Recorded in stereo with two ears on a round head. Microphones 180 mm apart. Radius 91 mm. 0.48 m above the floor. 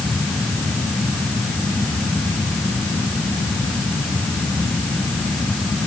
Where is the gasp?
I don't hear a gasp.